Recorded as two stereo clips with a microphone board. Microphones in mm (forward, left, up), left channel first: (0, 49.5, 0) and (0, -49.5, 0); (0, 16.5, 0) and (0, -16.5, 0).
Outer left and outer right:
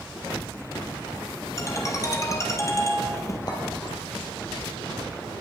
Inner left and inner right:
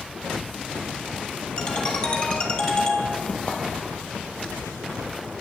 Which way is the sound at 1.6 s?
30° left (ahead or behind).